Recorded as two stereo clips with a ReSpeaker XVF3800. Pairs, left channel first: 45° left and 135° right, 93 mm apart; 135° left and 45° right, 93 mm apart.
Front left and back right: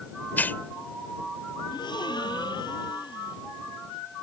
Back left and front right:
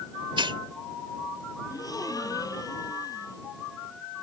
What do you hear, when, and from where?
0.4 s a hiss: 25° right
1.7 s a gasp: 85° left